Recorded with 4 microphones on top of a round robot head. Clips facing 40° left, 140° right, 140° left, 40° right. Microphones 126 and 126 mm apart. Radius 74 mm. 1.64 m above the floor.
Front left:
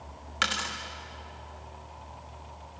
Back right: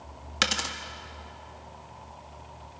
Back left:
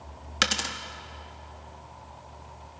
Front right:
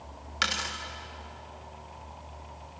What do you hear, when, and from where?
0.4 s a dropped coin: 170° left, 1.4 m